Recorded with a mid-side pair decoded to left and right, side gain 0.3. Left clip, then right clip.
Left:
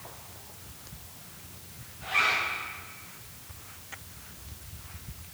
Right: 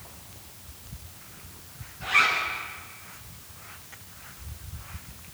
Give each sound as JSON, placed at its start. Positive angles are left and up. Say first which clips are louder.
{"t": 2.0, "sound": "a zipper", "louder": "right 4 dB", "azimuth_deg": -65, "distance_m": 6.5}